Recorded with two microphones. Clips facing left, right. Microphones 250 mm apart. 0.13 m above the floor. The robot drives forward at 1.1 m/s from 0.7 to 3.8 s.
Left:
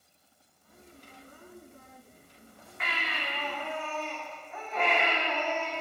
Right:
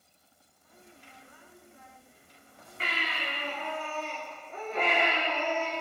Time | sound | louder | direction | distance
2.8 | a baby crying | right 1 dB | 35° right (ahead or behind) | 7.5 m